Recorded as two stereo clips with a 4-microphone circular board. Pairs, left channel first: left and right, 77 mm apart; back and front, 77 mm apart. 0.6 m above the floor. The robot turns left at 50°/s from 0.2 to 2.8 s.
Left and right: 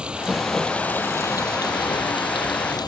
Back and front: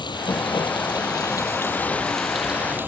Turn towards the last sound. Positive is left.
turn(degrees=65)